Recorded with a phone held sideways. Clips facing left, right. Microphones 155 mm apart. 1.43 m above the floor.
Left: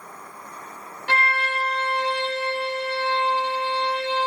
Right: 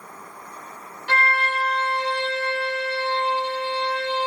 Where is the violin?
50° left (ahead or behind), 1.1 m.